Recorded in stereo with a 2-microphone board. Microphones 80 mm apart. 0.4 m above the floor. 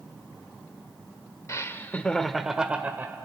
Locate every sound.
1.5 s laughter: 35° left (ahead or behind), 0.9 m; by 3.1 s 25° right (ahead or behind), 1.2 m